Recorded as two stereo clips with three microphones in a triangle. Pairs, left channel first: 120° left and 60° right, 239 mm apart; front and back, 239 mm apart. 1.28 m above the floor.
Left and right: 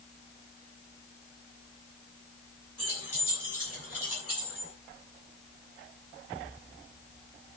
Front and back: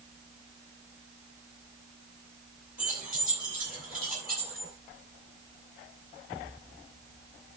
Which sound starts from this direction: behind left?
Keys jangling, at 2.8 s.